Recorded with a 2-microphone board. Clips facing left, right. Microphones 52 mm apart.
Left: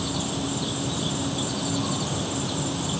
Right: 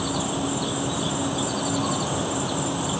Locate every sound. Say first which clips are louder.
0.0 s an insect: right 3 dB; 20° right (ahead or behind)